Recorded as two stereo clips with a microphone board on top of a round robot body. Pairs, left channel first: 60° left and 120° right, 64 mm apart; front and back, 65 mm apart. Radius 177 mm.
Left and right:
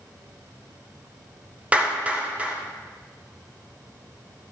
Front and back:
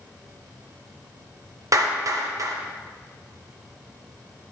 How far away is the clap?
About 1.2 m.